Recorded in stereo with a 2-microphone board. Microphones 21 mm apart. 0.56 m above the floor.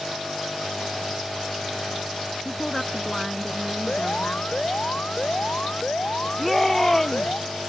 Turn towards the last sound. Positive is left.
turn(degrees=5)  # may be behind; listen again after turning